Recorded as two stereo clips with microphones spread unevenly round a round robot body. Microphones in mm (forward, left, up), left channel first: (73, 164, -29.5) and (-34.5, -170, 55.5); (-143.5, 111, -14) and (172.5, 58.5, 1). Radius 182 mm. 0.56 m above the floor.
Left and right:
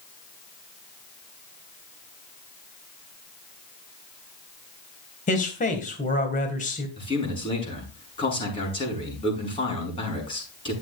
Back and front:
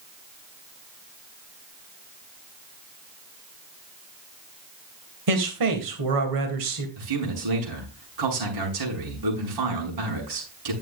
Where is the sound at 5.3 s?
10° left, 3 m.